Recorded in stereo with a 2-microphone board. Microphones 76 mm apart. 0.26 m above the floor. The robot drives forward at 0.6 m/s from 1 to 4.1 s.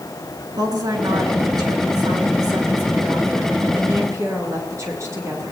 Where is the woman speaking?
65° right (ahead or behind), 3 m; by 5.5 s 45° right (ahead or behind), 4 m.